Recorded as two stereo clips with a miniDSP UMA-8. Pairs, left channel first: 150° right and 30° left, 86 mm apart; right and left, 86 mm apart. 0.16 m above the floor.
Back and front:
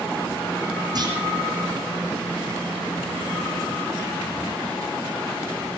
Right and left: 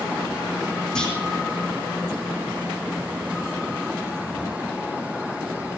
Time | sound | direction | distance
0.9 | a clunk | 10° right | 4.5 m